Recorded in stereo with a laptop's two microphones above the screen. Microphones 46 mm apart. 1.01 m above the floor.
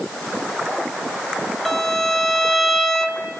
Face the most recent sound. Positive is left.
turn(degrees=5)  # may be behind; listen again after turning